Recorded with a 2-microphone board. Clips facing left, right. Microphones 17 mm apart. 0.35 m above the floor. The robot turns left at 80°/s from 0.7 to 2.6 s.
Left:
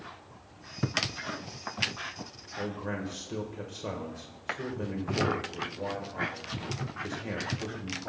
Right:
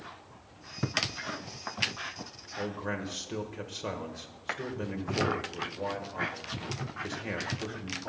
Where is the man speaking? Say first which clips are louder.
Even; 25° right (ahead or behind), 1.4 m.